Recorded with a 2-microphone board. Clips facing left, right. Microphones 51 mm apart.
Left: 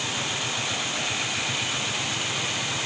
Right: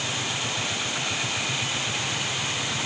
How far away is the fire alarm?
No fire alarm in this recording.